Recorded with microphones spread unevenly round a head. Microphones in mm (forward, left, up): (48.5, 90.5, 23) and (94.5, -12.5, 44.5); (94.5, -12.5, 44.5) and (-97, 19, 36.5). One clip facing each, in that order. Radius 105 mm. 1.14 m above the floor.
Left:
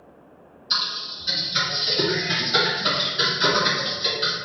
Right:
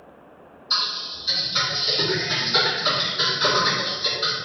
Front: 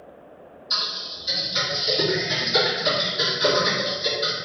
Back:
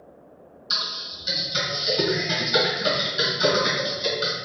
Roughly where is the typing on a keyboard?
Behind.